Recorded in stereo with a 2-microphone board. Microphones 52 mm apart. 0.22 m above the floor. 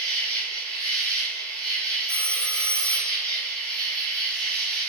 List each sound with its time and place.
0.0 s an insect: 15° left (ahead or behind), 0.8 m
2.1 s a phone ringing: 20° left (ahead or behind), 0.6 m